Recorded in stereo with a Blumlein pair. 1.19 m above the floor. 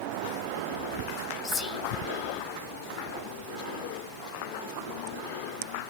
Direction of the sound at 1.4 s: 20° left.